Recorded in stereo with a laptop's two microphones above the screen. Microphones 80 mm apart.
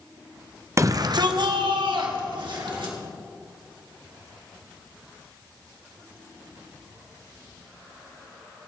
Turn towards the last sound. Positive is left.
turn(degrees=-80)